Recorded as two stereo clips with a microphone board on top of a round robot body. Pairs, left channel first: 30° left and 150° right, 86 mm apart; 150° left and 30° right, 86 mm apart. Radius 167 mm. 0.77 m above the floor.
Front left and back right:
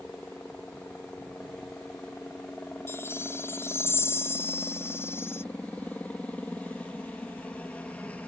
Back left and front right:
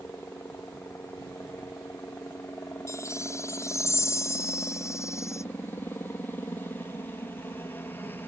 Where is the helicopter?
95° left.